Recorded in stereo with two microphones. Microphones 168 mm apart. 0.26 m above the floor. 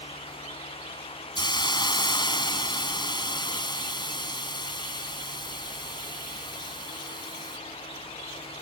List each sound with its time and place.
1.4 s a hiss: 25° left (ahead or behind)